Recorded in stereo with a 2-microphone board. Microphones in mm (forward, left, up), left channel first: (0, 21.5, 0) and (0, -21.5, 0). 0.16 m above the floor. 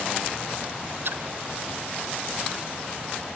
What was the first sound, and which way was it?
A splash, 60° right (ahead or behind).